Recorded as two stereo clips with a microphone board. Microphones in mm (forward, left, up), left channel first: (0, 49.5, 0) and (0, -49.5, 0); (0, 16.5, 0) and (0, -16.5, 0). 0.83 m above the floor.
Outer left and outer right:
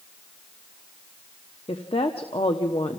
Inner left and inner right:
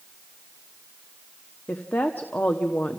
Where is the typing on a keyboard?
I don't hear typing on a keyboard.